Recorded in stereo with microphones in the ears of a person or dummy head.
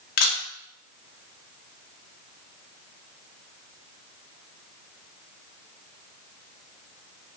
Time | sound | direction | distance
0.2 | a camera shutter | 55° left (ahead or behind) | 0.7 m